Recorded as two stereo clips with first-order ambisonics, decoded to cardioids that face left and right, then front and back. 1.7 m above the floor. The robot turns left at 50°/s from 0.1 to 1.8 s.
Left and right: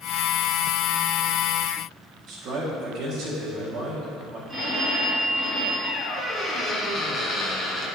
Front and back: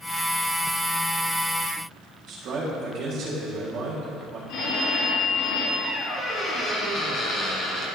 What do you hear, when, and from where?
2.3 s a man speaking: 130° right, 2 m
4.5 s a phone ringing: 5° right, 2.5 m
5.8 s a squeak: 30° left, 1.9 m